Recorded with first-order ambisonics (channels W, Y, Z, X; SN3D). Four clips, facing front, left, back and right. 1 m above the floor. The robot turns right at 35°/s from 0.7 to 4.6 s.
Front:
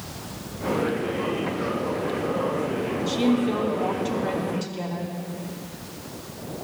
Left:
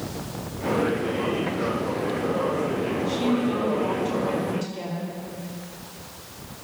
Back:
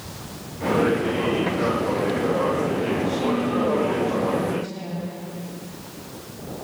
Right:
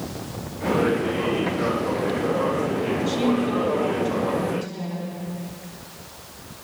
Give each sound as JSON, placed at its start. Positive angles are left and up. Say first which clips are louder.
{"t": 3.1, "sound": "a woman speaking", "louder": "right 1 dB, front 1 dB", "azimuth_deg": -45, "distance_m": 3.0}